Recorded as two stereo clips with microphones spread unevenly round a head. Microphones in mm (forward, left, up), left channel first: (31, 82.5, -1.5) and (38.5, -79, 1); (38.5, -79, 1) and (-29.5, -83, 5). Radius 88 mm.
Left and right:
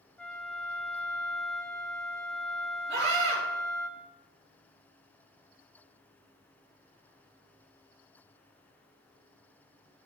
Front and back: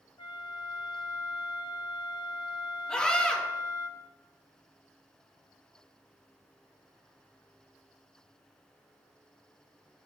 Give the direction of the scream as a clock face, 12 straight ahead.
2 o'clock.